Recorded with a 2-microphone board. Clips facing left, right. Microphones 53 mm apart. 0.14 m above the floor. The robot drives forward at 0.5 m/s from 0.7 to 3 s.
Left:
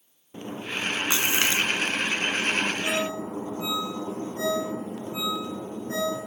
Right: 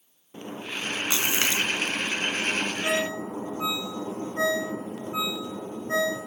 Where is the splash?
25° left (ahead or behind), 1.0 m.